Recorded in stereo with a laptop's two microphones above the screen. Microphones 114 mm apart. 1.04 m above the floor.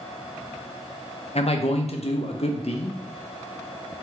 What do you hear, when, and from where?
1.4 s a man speaking: 60° left (ahead or behind), 0.8 m